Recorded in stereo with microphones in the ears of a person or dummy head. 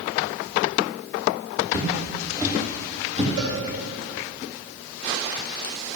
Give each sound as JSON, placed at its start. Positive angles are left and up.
{"t": 1.7, "sound": "footsteps", "side_deg": -15, "distance_m": 3.0}
{"t": 3.4, "sound": "a cowbell", "side_deg": -70, "distance_m": 2.5}